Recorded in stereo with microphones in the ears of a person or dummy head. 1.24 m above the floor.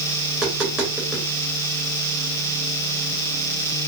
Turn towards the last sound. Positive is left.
turn(degrees=-5)  # may be behind; listen again after turning